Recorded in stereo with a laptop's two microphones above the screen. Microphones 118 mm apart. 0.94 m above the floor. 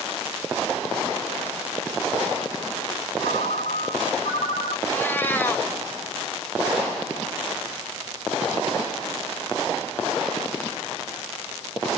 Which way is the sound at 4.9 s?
15° left (ahead or behind).